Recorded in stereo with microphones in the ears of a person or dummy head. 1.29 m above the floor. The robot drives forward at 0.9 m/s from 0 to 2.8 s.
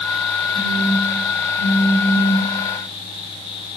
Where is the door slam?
I don't hear a door slam.